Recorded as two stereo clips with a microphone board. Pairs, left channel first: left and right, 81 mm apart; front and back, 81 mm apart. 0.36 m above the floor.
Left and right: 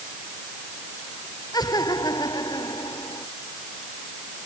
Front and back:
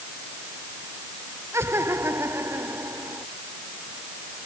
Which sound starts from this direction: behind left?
Laughter, at 1.5 s.